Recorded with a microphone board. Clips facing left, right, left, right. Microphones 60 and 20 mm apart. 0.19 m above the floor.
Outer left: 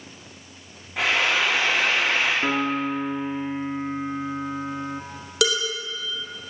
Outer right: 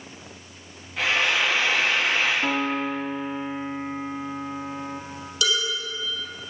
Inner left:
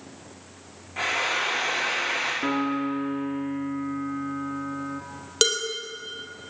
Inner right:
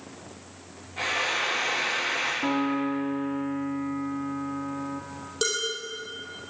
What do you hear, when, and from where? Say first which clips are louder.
1.0 s frying: outer left 1 dB, inner left 1 dB; 80° left, 6.5 m
2.4 s a piano: outer left 1 dB, even; 20° left (ahead or behind), 1.3 m
5.4 s dishes clattering: outer left 3 dB, inner left 5 dB; 75° left (ahead or behind), 3.5 m